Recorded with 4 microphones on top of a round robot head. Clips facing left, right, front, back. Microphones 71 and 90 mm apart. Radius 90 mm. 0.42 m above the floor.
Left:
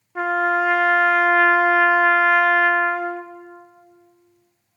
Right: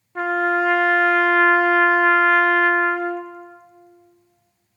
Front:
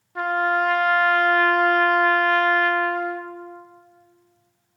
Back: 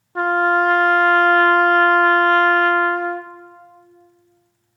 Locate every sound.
0.1 s a trumpet: 175° left, 0.7 m